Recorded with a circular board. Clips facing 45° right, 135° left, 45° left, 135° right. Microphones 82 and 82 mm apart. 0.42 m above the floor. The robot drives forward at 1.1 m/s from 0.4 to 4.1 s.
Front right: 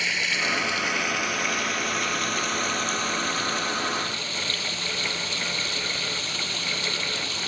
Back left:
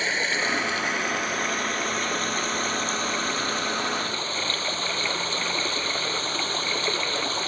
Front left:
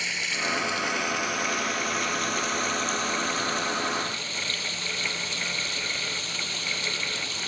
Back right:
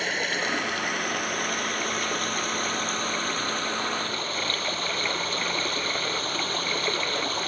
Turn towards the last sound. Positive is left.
turn(degrees=-175)